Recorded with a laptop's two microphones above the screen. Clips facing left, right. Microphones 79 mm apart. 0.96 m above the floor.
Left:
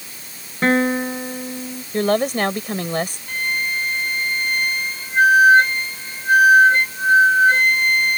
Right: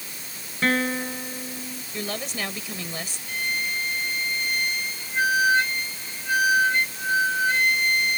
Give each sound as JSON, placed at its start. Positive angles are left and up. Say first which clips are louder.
{"t": 0.6, "sound": "a guitar", "louder": "left 6 dB", "side_deg": 35}
{"t": 1.9, "sound": "a woman speaking", "louder": "left 14 dB", "side_deg": 60}
{"t": 3.3, "sound": "a flute", "louder": "left 5 dB", "side_deg": 50}